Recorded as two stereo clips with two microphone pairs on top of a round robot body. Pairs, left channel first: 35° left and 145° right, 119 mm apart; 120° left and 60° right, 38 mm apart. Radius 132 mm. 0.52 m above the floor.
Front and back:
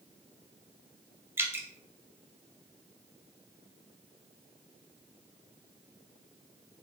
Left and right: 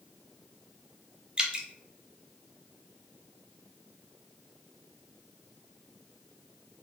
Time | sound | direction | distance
1.4 | dripping | 85° right | 0.8 m